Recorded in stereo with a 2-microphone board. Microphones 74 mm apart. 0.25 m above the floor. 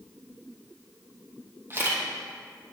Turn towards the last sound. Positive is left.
turn(degrees=-35)  # may be behind; listen again after turning